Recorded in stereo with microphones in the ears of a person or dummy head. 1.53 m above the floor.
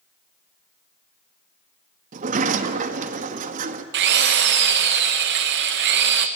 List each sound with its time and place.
2.1 s a sliding door: 50° right (ahead or behind), 1.4 m
3.9 s a drill: 60° right (ahead or behind), 1.0 m